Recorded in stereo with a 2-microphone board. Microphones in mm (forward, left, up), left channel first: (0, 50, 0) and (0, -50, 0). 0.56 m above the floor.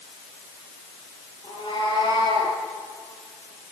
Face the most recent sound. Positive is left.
turn(degrees=50)  # may be behind; listen again after turning